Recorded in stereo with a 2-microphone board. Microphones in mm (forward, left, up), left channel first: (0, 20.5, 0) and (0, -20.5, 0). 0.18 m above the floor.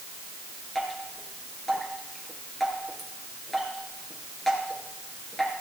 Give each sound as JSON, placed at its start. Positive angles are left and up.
{"t": 0.8, "sound": "dripping", "side_deg": 5, "distance_m": 3.0}